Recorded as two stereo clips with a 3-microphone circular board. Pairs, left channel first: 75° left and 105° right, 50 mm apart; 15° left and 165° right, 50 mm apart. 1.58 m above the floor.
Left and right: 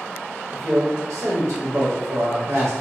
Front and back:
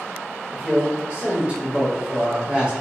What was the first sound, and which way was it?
A man speaking, 90° right.